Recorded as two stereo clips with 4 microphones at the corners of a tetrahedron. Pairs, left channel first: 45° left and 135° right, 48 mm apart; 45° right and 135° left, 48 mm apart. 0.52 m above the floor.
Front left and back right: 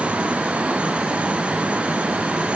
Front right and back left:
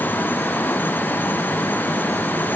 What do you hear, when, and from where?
Only background noise.